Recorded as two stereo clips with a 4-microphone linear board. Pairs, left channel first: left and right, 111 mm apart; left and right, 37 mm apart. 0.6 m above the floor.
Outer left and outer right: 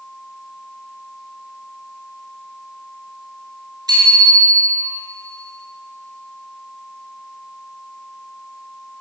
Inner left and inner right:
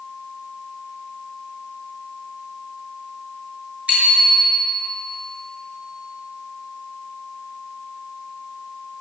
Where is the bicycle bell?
35° right (ahead or behind), 7 m.